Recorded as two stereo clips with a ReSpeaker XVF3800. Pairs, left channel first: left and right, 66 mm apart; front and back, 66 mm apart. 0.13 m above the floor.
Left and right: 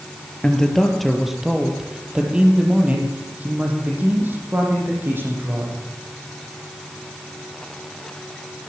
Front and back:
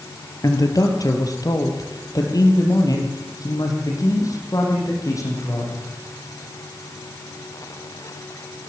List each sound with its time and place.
0.4 s a man speaking: 10° left, 3.5 m; by 5.8 s 35° right, 8.5 m